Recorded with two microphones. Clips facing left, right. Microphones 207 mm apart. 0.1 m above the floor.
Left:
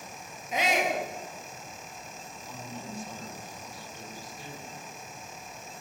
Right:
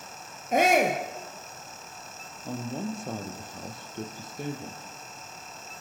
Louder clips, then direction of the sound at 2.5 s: Right 10 dB; 55° right (ahead or behind).